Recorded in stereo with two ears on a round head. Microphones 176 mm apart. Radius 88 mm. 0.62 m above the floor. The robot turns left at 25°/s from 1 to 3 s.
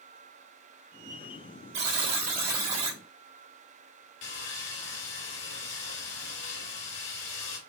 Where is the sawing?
65° left (ahead or behind), 2.5 m.